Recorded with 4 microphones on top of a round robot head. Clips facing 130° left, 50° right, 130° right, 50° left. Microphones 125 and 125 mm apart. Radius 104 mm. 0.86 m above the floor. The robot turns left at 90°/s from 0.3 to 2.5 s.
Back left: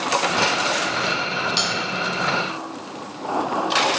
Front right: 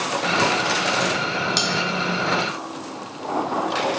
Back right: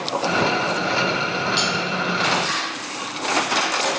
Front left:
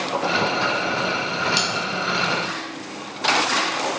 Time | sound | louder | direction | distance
1.6 | cutlery clinking | front right 1 dB, back right 2 dB | straight ahead | 1.3 m